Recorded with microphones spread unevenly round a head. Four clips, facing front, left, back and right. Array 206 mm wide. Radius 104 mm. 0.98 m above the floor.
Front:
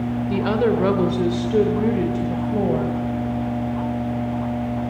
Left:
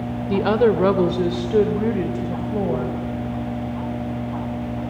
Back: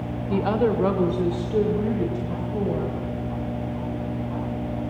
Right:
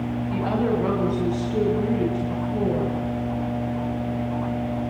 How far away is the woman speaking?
About 2.5 m.